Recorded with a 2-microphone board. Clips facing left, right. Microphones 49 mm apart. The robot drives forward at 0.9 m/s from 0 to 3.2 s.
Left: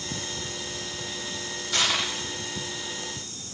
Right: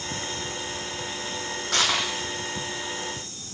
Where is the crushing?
55° right (ahead or behind), 3 m; by 2.1 s 60° right (ahead or behind), 3 m.